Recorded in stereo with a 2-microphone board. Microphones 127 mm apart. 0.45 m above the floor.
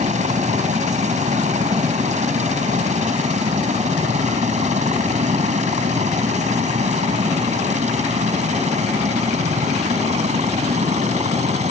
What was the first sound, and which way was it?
A helicopter, 65° right (ahead or behind).